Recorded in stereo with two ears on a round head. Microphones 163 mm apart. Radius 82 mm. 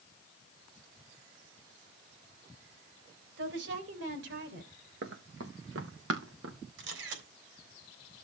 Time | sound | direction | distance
3.4 | a woman speaking | 75° right (ahead or behind) | 3.5 m
5.0 | running footsteps | 70° right (ahead or behind) | 3 m
6.8 | a camera shutter | 75° right (ahead or behind) | 3.5 m